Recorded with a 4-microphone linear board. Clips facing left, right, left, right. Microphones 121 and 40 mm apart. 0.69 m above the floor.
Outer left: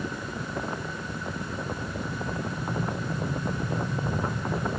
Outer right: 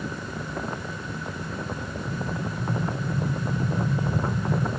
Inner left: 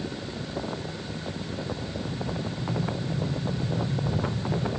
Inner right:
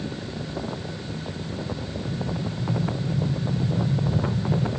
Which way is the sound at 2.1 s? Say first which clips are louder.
Outer right 4 dB, inner right 4 dB; 30° right (ahead or behind).